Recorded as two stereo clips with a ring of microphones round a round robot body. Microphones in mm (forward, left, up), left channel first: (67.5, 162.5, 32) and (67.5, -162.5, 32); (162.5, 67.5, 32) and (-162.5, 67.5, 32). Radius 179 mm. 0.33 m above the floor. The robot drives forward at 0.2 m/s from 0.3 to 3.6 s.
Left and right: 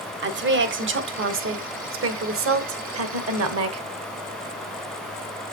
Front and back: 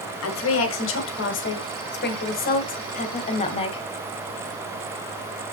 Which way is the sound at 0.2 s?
40° right.